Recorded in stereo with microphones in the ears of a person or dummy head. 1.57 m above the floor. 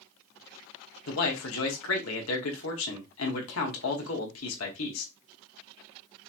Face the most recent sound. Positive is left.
turn(degrees=80)